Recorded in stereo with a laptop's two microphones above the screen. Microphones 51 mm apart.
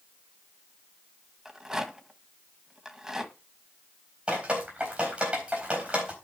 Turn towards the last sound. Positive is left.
turn(degrees=-20)  # may be behind; listen again after turning